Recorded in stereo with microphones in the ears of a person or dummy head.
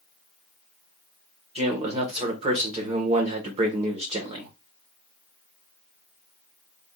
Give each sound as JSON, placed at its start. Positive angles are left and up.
{"t": 1.6, "sound": "a man speaking", "side_deg": -30, "distance_m": 1.2}